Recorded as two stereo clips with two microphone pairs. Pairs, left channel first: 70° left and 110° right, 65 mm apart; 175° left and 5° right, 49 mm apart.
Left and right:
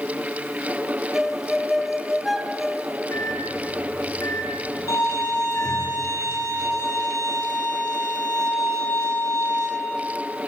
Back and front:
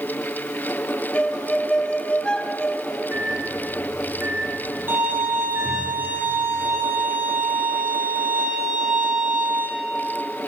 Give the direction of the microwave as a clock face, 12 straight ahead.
11 o'clock.